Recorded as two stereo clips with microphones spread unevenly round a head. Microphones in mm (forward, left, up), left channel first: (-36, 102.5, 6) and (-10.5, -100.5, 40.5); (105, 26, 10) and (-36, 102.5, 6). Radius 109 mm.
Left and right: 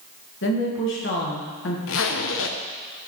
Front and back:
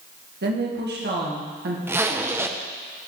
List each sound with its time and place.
0.4 s a woman speaking: 130° left, 1.9 m
1.9 s a zipper: 80° left, 0.8 m